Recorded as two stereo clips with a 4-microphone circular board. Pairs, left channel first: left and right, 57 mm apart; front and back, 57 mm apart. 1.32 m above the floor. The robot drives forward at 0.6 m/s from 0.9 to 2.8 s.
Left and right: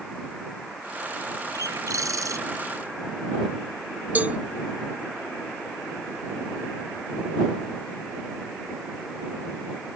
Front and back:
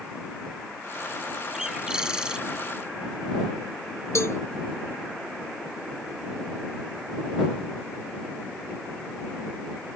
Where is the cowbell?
30° right.